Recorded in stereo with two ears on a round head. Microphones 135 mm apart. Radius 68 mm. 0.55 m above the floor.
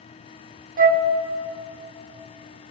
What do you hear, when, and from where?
0.8 s a flute: 55° right (ahead or behind), 0.8 m